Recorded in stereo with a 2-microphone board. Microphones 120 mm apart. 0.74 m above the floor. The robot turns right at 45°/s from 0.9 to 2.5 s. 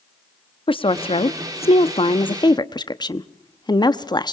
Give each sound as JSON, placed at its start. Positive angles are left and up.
{"t": 0.7, "sound": "a woman speaking", "side_deg": 45, "distance_m": 0.9}